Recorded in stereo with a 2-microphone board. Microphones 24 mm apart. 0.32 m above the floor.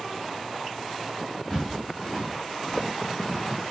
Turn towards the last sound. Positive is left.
turn(degrees=30)  # may be behind; listen again after turning